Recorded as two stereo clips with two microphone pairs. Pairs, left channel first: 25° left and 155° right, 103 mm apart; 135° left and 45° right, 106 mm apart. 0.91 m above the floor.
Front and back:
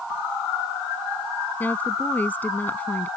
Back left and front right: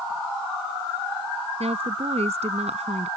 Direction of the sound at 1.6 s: 45° right.